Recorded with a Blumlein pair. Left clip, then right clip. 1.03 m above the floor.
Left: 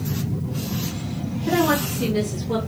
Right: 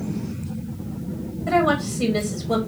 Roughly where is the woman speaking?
Ahead.